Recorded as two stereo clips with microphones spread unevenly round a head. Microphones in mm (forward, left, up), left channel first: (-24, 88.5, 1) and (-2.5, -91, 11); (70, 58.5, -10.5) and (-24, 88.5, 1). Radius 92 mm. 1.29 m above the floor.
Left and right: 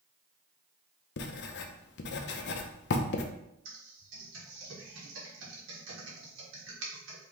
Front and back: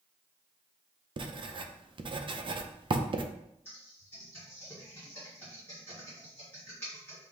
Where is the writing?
125° left, 0.5 m.